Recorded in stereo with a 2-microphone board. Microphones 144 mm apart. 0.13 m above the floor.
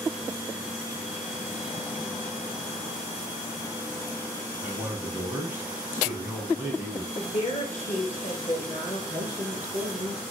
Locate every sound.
4.6 s a man speaking: 15° right (ahead or behind), 1.5 m
7.1 s a woman speaking: 50° left (ahead or behind), 2.0 m
9.1 s a man speaking: 45° right (ahead or behind), 2.0 m